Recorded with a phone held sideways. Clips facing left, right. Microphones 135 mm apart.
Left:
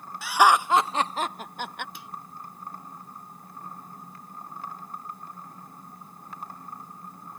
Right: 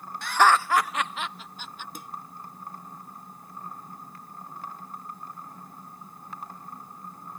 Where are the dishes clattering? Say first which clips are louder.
Right 2 dB; 45° right (ahead or behind).